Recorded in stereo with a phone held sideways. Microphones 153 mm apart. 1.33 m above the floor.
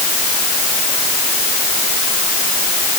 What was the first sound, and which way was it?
Only background noise.